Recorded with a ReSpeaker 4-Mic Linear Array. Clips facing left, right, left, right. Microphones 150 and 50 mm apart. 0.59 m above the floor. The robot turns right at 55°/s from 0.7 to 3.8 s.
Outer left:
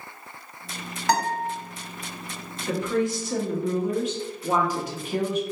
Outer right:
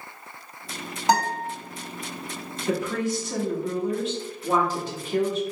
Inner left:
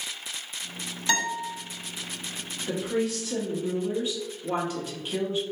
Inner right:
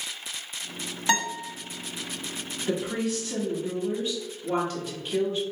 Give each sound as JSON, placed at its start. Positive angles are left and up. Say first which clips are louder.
{"t": 1.1, "sound": "a guitar", "louder": "outer right 1 dB, inner right 1 dB", "side_deg": -20, "distance_m": 1.3}
{"t": 2.7, "sound": "a woman speaking", "louder": "outer left 1 dB, inner left 1 dB", "side_deg": -10, "distance_m": 0.8}